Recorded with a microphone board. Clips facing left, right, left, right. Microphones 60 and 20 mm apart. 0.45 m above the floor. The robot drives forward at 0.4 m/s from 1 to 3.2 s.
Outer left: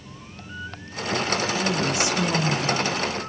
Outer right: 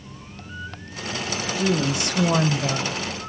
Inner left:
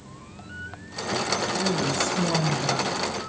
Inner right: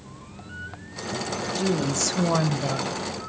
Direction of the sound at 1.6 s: 60° right (ahead or behind).